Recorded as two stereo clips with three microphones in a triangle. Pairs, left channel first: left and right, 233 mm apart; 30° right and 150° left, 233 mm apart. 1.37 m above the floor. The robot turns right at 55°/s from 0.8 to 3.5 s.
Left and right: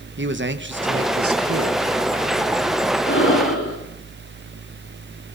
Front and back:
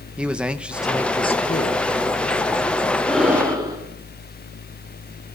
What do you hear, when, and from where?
0.2 s a man speaking: 125° right, 1.8 m; by 1.9 s 65° right, 1.8 m
3.1 s breathing: 55° left, 5.5 m; by 3.8 s 75° left, 5.5 m